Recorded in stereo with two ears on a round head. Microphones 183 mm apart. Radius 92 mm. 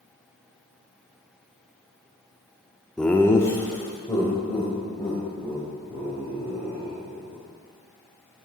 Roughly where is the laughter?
Centre.